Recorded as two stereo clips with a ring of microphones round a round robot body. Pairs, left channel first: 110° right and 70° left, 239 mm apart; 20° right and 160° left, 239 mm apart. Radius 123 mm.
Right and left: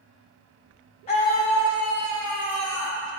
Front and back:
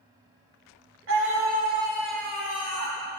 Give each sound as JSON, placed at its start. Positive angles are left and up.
{"t": 1.1, "sound": "a scream", "azimuth_deg": -175, "distance_m": 1.8}